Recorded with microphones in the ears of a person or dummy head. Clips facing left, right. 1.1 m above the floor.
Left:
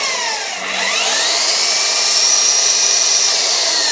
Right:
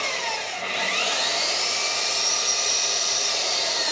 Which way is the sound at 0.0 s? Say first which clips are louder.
Left 5 dB; 80° left.